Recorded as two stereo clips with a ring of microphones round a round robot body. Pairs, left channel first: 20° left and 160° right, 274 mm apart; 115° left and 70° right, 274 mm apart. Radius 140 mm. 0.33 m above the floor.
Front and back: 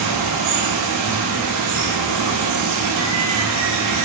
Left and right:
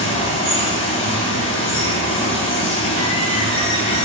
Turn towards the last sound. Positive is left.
turn(degrees=180)